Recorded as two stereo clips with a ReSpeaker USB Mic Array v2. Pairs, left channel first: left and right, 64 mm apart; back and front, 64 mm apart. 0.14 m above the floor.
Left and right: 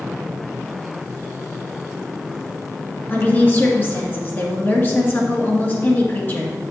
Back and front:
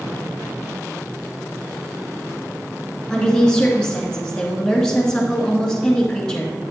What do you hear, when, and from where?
3.1 s a woman speaking: 110° left, 1.9 m